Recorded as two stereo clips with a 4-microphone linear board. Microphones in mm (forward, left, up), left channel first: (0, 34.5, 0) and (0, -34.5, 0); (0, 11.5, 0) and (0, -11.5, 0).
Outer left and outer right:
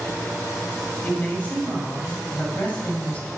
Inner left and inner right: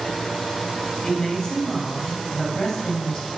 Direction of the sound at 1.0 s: 20° left (ahead or behind).